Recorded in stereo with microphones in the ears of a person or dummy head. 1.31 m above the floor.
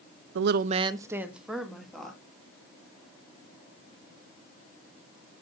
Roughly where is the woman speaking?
Right.